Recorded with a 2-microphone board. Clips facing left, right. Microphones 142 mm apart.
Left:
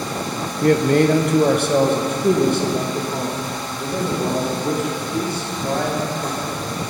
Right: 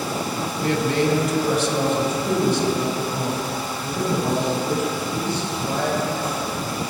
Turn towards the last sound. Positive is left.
turn(degrees=50)  # may be behind; listen again after turning